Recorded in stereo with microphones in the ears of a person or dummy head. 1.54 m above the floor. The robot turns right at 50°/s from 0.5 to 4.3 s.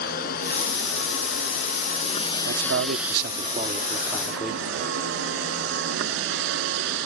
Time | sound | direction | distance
0.0 | a vehicle | 60° left | ?
2.5 | a man speaking | 95° right | ?